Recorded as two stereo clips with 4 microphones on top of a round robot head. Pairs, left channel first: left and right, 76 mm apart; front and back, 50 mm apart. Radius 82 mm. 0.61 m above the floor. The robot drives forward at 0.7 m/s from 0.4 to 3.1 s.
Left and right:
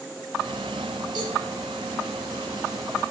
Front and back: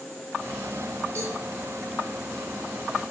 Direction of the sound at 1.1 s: 120° right.